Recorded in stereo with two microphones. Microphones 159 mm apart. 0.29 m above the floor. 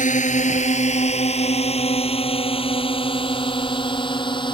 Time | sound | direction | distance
0.0 | a drone | 50° left (ahead or behind) | ?